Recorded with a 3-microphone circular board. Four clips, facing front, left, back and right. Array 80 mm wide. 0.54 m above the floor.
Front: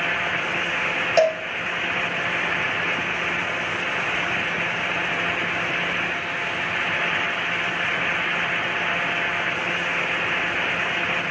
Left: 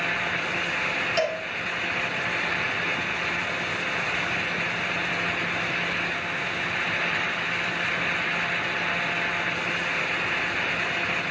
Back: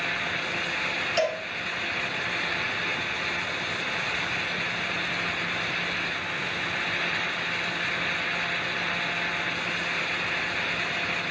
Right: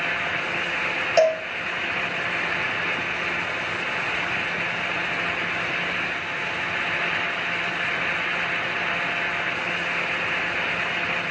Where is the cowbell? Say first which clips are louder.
Right 9 dB, front 8 dB; 35° right, 1.9 m.